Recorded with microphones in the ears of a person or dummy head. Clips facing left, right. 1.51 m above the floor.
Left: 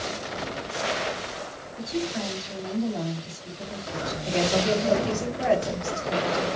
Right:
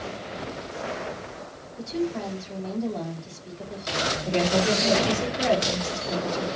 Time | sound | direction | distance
1.8 | a woman speaking | 5° left (ahead or behind) | 4 m
4.2 | a woman speaking | 30° right (ahead or behind) | 3 m